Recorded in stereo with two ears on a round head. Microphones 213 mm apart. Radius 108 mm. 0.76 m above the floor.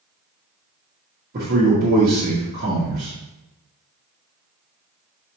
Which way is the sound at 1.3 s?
40° right (ahead or behind).